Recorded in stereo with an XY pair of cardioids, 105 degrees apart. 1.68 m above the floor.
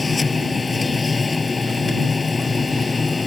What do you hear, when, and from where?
0.0 s a machine running: 25° left